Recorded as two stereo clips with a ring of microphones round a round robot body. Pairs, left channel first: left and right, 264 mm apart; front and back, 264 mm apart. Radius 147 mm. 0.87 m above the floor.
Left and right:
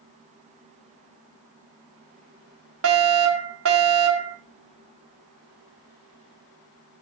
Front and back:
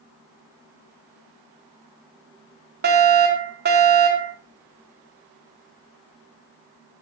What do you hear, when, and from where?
2.8 s a fire alarm: 125° right, 3.5 m